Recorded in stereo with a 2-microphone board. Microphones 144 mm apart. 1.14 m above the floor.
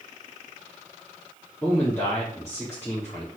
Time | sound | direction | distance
1.6 | a man speaking | 20° left (ahead or behind) | 3.5 m